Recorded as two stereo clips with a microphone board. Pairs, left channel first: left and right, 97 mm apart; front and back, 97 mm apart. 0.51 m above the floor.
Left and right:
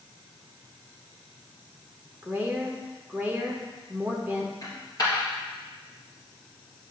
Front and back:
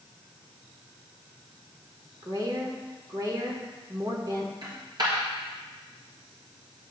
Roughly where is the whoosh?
I don't hear a whoosh.